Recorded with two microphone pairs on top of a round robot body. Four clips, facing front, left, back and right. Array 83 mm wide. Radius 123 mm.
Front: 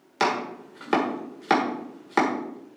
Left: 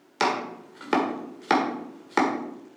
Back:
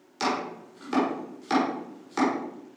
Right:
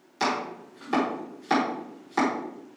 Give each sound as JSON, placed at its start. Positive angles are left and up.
{"t": 0.2, "sound": "chopping", "azimuth_deg": 45, "distance_m": 1.5}